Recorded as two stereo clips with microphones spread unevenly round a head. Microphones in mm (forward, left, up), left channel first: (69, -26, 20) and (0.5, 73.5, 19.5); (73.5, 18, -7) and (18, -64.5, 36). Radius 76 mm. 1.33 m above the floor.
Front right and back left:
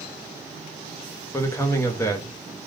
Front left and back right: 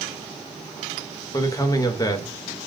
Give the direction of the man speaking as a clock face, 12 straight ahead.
12 o'clock.